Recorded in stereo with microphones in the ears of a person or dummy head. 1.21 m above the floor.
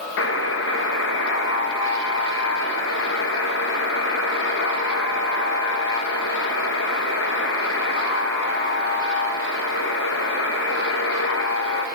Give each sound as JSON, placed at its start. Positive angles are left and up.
{"t": 0.2, "sound": "a buzzer", "side_deg": 70, "distance_m": 1.8}